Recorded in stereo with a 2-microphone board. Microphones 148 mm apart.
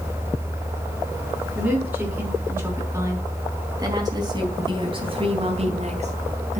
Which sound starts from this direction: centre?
A woman speaking, at 1.6 s.